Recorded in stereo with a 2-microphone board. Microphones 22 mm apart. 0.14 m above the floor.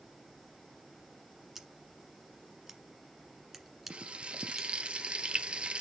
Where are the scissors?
15° right (ahead or behind), 1.3 m.